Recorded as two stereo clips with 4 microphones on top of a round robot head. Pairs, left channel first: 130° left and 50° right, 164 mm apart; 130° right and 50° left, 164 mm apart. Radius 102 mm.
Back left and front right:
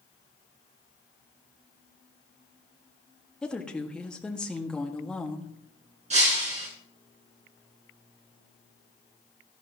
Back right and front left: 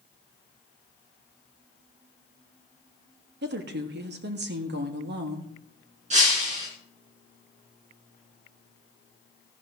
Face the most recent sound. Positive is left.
turn(degrees=0)